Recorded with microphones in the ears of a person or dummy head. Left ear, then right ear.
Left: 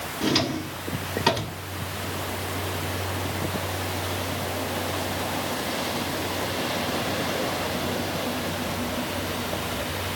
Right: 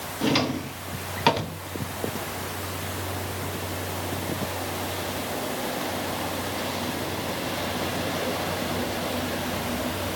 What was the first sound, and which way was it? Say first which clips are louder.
A drawer: even; 10° right (ahead or behind).